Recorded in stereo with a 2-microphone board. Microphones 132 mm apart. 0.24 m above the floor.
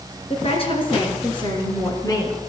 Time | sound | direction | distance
0.3 | a woman speaking | 50° left (ahead or behind) | 3.5 m